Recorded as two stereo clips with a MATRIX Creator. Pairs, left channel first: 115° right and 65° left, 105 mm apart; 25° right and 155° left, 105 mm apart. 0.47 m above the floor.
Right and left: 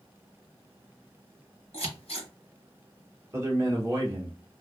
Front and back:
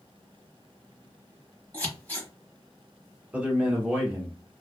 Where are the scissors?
95° right, 1.0 m.